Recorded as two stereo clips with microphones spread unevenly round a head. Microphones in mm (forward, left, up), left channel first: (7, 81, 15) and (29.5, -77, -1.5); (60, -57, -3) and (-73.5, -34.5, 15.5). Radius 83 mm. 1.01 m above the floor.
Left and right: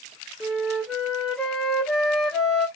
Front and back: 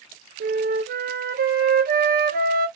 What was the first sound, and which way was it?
A flute, 175° right.